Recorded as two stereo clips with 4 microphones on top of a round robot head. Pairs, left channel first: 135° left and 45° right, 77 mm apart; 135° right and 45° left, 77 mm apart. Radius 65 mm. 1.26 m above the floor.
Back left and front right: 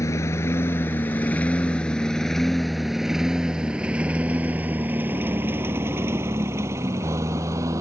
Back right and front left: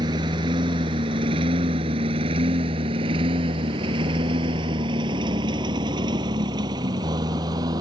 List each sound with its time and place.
0.0 s a lawn mower: 80° left; by 7.8 s 5° left